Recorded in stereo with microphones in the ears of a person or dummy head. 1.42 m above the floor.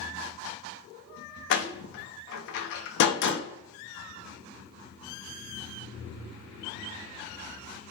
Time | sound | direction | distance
1.5 | a door slam | 70° left (ahead or behind) | 0.5 m